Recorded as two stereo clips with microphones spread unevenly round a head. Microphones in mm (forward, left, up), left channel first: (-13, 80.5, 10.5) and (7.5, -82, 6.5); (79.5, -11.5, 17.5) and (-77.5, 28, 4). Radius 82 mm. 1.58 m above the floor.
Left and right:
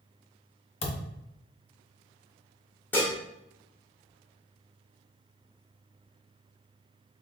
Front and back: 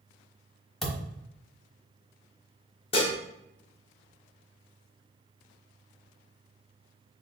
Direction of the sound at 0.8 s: 65° left.